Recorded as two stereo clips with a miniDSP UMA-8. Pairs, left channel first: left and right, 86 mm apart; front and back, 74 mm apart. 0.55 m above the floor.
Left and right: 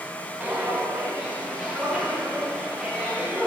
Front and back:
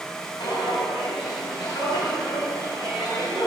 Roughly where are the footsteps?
Ahead.